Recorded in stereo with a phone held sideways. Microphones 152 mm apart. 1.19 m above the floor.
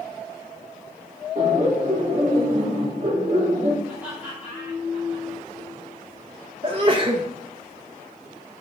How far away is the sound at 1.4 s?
About 2.5 m.